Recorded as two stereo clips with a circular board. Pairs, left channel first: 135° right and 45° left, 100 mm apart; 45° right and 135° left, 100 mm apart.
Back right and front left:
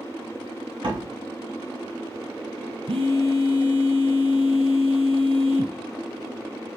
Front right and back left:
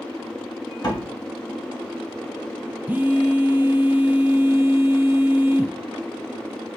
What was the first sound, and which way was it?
A door slam, 5° left.